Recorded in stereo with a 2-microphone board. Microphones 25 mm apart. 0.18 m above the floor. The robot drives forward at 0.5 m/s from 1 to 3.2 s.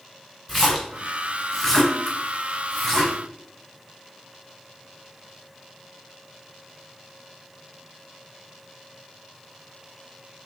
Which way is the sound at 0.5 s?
10° left (ahead or behind).